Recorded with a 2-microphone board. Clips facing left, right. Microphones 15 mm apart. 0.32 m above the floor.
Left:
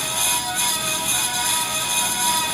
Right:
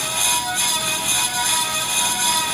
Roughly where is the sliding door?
No sliding door in this recording.